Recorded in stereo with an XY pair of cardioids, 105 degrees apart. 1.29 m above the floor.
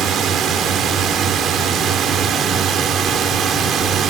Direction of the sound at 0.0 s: 70° right.